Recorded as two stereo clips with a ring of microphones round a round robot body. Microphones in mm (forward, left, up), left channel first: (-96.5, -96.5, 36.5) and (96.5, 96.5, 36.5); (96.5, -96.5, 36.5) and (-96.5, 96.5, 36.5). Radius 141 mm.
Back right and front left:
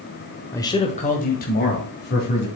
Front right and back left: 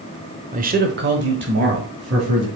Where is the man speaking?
155° left, 1.0 m; by 2.5 s straight behind, 3 m.